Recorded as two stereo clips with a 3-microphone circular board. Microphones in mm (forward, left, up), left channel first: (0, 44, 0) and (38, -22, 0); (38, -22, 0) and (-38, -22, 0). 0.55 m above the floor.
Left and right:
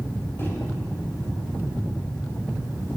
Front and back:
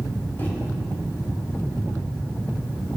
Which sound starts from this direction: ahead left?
A microwave, at 0.4 s.